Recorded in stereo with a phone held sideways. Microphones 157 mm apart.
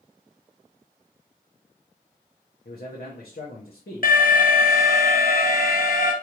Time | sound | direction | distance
2.6 | a man speaking | 80° left | 1.0 m
4.0 | an alarm | 65° left (ahead or behind) | 0.8 m